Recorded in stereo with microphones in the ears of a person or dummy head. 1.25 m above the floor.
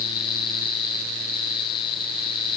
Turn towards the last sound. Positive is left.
No sound to turn to.